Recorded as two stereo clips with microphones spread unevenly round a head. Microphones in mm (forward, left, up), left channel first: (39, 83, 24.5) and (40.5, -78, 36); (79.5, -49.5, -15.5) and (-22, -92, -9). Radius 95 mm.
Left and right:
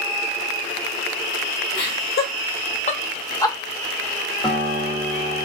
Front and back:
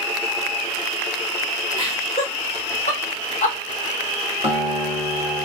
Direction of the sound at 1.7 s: 90° left.